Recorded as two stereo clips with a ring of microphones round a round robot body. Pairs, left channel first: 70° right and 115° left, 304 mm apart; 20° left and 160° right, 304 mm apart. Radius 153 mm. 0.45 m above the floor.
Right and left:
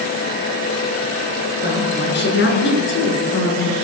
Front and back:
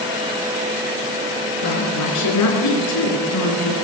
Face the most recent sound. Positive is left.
turn(degrees=-20)